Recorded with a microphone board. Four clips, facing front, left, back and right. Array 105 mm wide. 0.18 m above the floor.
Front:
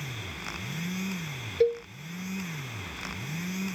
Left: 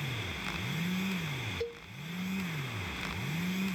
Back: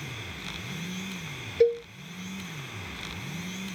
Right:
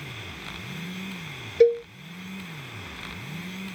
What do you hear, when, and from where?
1.6 s a cowbell: 95° right